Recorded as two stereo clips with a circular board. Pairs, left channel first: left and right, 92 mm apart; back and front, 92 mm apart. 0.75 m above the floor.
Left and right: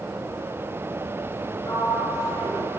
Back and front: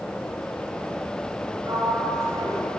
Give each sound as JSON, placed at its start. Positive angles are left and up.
{"t": 1.6, "sound": "a sliding door", "azimuth_deg": 45, "distance_m": 7.5}